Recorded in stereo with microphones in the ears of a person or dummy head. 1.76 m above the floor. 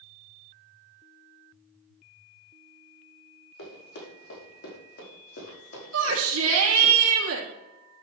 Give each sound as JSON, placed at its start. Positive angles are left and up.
{"t": 3.6, "sound": "running footsteps", "side_deg": 65, "distance_m": 5.5}
{"t": 5.9, "sound": "a shout", "side_deg": -75, "distance_m": 2.5}